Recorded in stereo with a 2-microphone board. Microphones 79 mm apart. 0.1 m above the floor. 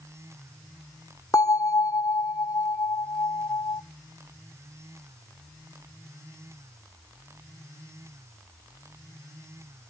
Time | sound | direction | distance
1.3 | a bell | 40° left (ahead or behind) | 1.1 m